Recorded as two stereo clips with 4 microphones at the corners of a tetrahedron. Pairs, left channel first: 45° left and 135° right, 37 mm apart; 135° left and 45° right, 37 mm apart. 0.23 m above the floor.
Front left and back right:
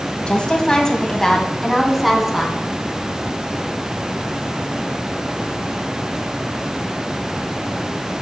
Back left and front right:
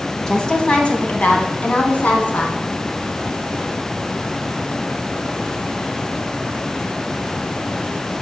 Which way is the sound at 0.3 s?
75° left.